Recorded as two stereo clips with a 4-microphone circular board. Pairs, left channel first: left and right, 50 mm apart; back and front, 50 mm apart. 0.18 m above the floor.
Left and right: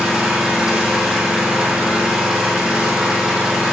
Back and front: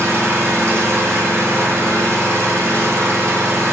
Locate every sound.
0.0 s an engine running: 15° right, 1.3 m